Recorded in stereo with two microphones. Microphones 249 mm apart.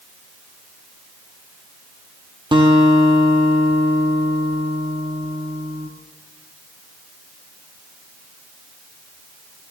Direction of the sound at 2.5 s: 20° right (ahead or behind).